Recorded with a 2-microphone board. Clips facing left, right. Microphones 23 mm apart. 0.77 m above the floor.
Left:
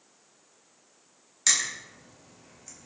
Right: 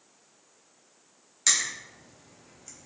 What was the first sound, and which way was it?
Crushing, centre (ahead or behind).